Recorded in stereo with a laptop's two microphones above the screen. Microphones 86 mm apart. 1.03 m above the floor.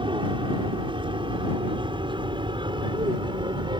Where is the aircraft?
65° right (ahead or behind); by 3.8 s 55° right (ahead or behind).